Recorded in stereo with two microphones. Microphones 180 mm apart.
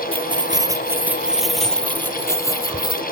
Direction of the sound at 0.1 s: 35° right (ahead or behind).